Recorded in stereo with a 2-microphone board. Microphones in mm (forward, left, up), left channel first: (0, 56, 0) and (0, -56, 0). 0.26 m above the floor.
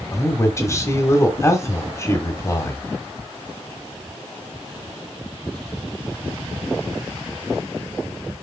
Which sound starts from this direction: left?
A man speaking, at 0.1 s.